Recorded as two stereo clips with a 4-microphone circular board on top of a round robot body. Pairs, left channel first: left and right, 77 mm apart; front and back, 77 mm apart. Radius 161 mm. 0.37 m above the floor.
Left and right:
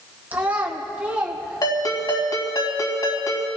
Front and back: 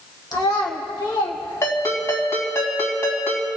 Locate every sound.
0.3 s a child speaking: 25° right, 2 m; by 2.2 s 10° right, 3.5 m
1.6 s a ringtone: 55° left, 3.5 m